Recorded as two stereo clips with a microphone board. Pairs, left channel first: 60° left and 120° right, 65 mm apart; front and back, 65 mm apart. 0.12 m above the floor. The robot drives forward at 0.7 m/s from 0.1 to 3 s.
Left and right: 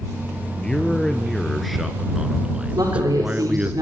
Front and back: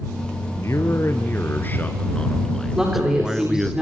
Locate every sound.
0.6 s a man speaking: 15° right, 2 m; by 3.8 s 105° right, 1.4 m
2.8 s a woman speaking: 105° right, 9.5 m